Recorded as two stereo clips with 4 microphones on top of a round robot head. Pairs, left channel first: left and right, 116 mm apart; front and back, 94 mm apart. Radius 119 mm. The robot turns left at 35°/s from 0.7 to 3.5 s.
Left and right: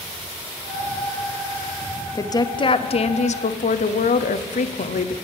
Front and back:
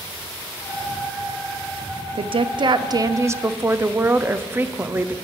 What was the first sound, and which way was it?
A woman speaking, 155° left.